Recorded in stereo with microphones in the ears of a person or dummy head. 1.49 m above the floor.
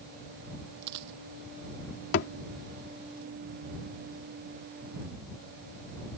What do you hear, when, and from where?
0.8 s a dropped coin: 60° right (ahead or behind)
2.1 s a thud: 55° left (ahead or behind)